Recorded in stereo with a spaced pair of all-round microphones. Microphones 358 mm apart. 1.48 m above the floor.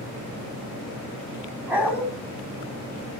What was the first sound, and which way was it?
A dog barking, 5° right (ahead or behind).